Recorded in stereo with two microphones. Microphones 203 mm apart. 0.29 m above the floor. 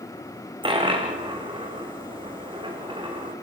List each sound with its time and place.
0.6 s a dropped coin: 25° right (ahead or behind), 3 m